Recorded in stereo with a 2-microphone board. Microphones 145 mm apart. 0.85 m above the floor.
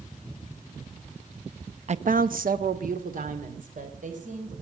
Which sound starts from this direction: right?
A woman speaking, at 1.9 s.